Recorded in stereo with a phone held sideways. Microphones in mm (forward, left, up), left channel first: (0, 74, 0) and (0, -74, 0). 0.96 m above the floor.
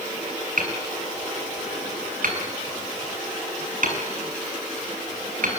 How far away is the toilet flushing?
I don't hear a toilet flushing.